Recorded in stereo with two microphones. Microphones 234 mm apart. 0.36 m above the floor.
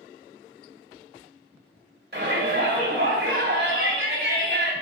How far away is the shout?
About 2 m.